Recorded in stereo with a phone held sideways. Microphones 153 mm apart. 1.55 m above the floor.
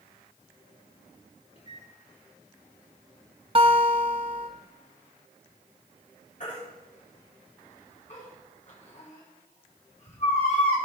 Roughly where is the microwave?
Left.